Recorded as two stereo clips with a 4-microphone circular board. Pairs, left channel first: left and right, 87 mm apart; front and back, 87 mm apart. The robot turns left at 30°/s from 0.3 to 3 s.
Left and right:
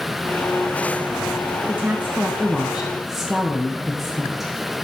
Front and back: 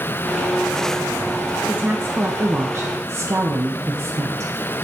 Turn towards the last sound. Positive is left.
turn(degrees=-170)